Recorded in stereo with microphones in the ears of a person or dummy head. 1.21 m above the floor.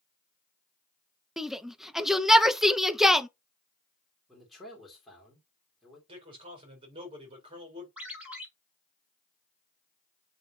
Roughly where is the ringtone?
Centre.